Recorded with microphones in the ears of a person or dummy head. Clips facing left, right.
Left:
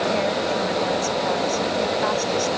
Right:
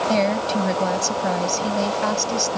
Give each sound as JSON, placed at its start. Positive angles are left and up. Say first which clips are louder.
{"t": 0.1, "sound": "a woman speaking", "louder": "right 2 dB", "side_deg": -55}